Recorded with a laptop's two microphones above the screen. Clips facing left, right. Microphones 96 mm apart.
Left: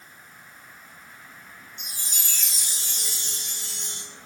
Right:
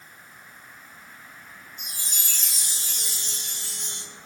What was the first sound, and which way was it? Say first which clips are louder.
A chime: even; 45° right (ahead or behind).